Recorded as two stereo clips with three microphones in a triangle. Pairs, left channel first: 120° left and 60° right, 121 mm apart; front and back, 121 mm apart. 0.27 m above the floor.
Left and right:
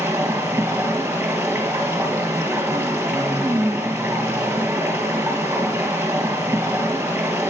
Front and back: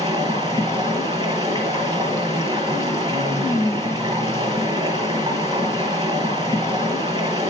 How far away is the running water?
About 2.5 m.